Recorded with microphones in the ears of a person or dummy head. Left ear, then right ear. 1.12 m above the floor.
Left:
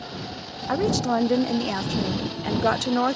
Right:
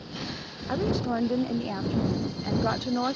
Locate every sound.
0.7 s a woman speaking: 75° left (ahead or behind)